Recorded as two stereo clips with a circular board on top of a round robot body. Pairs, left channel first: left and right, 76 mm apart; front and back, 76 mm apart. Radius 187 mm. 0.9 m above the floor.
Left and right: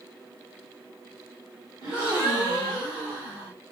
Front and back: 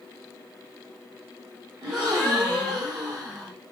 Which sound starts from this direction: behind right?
A gasp, at 1.8 s.